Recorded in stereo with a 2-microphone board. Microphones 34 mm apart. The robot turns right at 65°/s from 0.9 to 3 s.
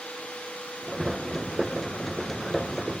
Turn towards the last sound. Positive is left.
No sound to turn to.